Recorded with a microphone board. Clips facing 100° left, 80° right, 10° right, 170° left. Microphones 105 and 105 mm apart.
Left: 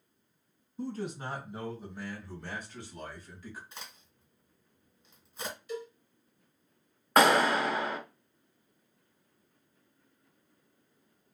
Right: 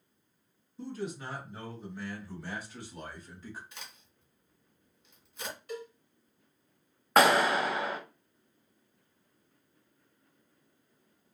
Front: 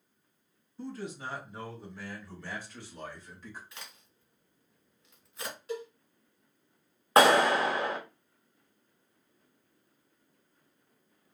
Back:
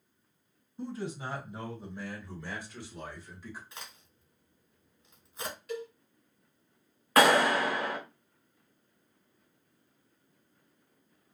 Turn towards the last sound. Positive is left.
turn(degrees=5)